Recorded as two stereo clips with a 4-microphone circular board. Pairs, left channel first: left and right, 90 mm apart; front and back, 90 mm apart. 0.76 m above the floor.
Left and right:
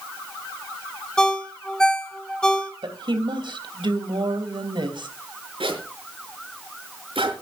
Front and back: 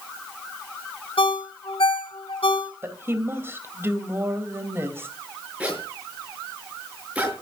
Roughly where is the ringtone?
Ahead.